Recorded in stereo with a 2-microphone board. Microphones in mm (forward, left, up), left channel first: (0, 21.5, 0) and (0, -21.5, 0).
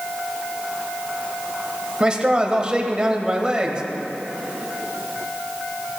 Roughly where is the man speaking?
Right.